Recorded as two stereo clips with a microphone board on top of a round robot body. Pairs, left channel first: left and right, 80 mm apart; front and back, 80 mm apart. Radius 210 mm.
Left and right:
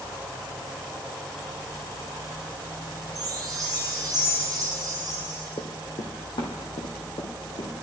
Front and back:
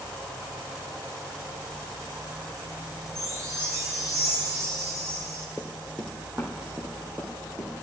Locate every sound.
3.1 s a chime: 130° right, 2.0 m
5.6 s running footsteps: 80° left, 0.6 m; by 7.7 s 110° left, 2.5 m